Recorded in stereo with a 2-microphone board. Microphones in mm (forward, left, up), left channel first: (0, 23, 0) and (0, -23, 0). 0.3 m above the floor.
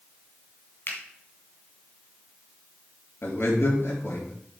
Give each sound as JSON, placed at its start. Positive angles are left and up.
{"t": 0.9, "sound": "a finger snap", "side_deg": 45, "distance_m": 2.0}
{"t": 3.2, "sound": "a man speaking", "side_deg": 60, "distance_m": 4.5}